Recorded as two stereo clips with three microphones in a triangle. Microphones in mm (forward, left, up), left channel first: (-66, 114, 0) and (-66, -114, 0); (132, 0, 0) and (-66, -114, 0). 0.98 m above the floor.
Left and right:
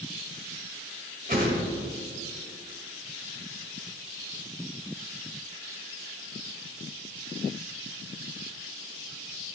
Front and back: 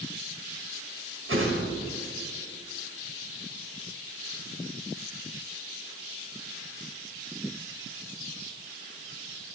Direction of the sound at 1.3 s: 140° right.